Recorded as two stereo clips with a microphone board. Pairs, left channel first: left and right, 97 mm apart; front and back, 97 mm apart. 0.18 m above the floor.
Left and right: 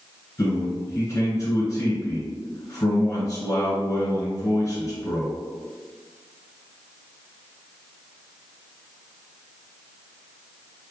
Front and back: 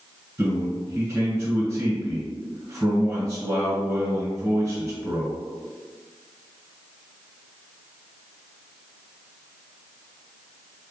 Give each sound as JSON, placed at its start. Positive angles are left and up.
{"t": 0.4, "sound": "a man speaking", "azimuth_deg": 125, "distance_m": 1.4}